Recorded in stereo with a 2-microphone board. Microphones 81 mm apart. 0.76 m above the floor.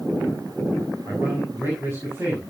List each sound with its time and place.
1.1 s a man speaking: 30° right (ahead or behind), 7 m